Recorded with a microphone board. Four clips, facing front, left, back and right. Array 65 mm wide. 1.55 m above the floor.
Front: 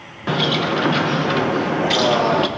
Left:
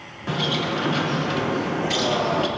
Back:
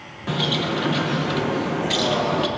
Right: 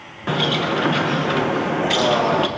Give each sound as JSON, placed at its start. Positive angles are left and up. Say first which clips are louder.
{"t": 0.3, "sound": "a bird", "louder": "right 4 dB, front 4 dB", "azimuth_deg": -40, "distance_m": 0.7}